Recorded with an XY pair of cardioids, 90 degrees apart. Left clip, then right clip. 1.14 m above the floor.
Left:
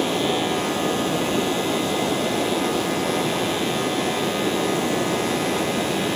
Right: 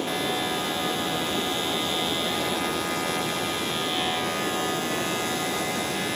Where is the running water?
55° left.